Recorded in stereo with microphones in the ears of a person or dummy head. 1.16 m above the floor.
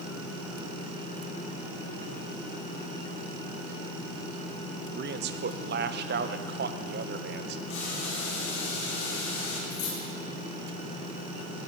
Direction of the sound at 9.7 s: 50° left (ahead or behind).